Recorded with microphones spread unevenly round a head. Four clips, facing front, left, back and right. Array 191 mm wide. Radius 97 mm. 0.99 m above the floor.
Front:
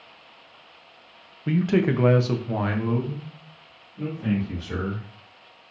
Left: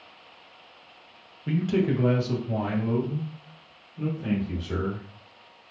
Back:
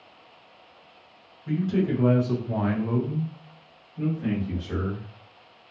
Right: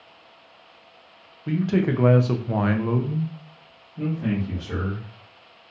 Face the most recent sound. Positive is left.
turn(degrees=-105)